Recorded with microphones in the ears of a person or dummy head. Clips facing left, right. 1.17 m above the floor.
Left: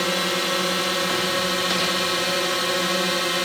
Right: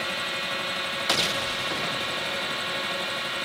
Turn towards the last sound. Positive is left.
turn(degrees=65)  # may be behind; listen again after turning